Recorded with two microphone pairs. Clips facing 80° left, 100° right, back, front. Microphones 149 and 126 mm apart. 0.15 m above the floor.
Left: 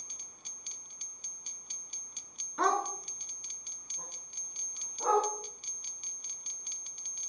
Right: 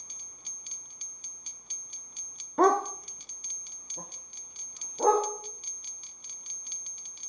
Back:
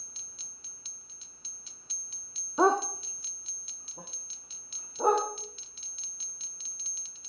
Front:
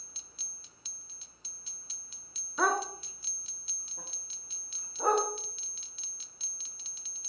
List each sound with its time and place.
2.6 s a dog barking: 130° right, 0.8 m; by 5.3 s 115° right, 4.5 m